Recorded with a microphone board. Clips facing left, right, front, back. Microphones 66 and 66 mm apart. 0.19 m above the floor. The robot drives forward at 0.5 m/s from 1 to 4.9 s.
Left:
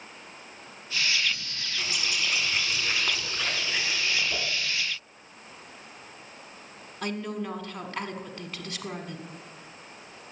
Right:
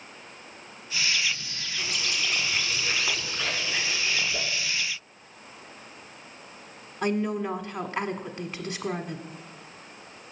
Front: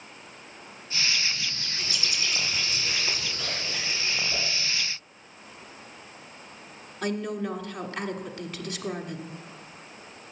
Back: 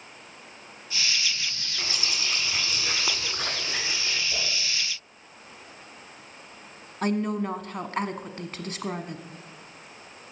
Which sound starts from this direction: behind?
A bird, at 1.8 s.